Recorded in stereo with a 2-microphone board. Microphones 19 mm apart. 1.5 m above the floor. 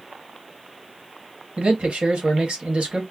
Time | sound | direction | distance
1.6 | a man speaking | 85° right | 1.4 m